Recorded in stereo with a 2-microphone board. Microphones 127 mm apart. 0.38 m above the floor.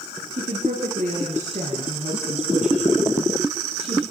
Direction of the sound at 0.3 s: 80° right.